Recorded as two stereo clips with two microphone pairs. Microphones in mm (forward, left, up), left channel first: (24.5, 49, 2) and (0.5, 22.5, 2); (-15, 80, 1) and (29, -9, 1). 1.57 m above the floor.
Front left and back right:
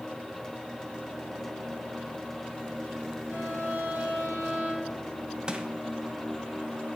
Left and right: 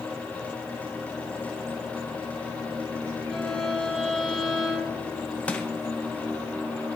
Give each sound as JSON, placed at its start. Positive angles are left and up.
{"t": 3.3, "sound": "a violin", "azimuth_deg": -155, "distance_m": 5.0}
{"t": 5.5, "sound": "crushing", "azimuth_deg": 180, "distance_m": 1.1}